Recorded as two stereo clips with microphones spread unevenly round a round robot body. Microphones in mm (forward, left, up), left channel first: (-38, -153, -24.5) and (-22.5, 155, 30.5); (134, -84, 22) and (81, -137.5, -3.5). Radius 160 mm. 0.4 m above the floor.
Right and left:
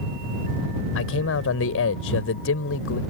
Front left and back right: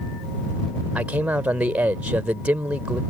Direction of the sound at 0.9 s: 85° right.